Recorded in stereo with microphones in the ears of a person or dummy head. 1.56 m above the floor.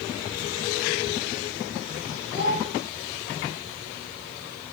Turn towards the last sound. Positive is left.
turn(degrees=30)  # may be behind; listen again after turning